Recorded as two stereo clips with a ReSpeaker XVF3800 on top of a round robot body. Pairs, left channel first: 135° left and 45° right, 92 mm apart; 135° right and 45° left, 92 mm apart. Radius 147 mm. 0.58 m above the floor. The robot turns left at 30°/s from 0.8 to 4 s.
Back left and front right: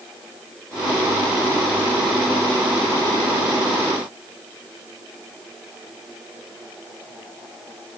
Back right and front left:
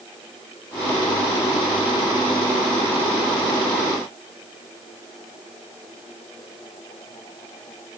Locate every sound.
Only background noise.